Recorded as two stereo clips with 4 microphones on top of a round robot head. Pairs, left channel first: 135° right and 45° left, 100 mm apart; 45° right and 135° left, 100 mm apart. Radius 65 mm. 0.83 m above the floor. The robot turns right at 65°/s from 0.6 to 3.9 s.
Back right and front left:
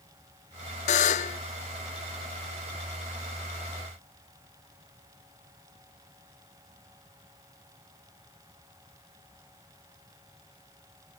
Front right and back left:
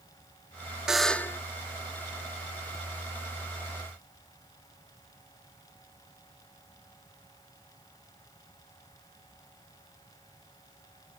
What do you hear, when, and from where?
0.9 s a buzzer: 145° right, 0.6 m; by 1.4 s 110° right, 0.6 m